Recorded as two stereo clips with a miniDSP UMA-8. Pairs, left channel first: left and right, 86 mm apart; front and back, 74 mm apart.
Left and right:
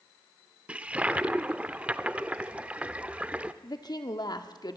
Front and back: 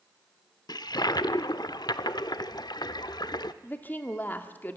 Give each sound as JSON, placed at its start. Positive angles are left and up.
{"t": 0.7, "sound": "a toilet flushing", "azimuth_deg": -15, "distance_m": 0.6}
{"t": 3.6, "sound": "a woman speaking", "azimuth_deg": 60, "distance_m": 1.4}